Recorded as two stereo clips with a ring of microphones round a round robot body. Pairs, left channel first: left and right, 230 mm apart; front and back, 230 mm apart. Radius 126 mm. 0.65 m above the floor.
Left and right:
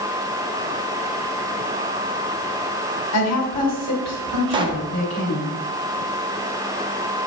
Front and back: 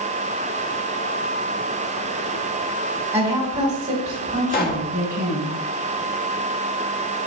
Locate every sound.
3.1 s a woman speaking: 100° left, 2 m; by 5.5 s 125° left, 3 m
4.5 s a pop: 25° right, 1.0 m